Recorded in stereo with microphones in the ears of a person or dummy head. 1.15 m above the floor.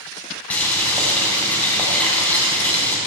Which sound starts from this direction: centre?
Boiling, at 0.5 s.